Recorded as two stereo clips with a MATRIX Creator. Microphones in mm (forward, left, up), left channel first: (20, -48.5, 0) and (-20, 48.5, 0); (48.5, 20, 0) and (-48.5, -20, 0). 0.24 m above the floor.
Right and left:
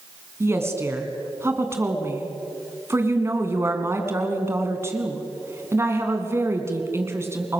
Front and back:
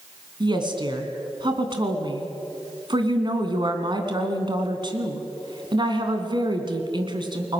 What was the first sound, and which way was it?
A woman speaking, 175° left.